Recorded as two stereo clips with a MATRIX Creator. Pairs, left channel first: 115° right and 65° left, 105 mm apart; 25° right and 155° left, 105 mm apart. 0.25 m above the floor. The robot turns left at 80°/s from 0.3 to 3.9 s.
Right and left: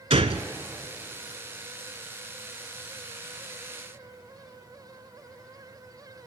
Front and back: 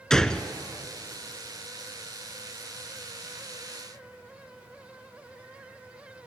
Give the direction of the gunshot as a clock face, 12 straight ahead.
10 o'clock.